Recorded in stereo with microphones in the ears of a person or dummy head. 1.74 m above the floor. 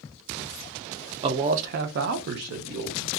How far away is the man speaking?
About 0.5 m.